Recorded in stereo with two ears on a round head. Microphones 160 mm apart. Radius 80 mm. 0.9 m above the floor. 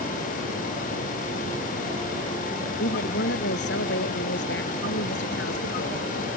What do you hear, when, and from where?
2.8 s a woman speaking: 70° left (ahead or behind)